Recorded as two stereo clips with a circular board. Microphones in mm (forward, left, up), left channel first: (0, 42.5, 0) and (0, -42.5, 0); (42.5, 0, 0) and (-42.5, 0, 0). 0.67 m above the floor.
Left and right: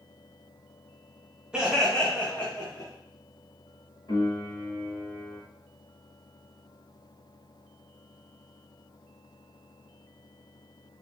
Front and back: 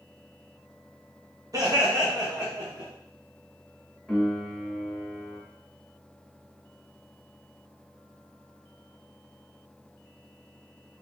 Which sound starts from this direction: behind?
Laughter, at 1.5 s.